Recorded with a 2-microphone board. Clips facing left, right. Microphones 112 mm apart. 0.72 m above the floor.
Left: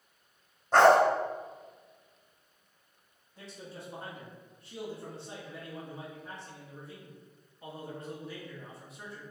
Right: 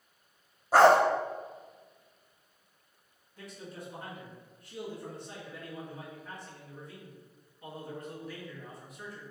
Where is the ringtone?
I don't hear a ringtone.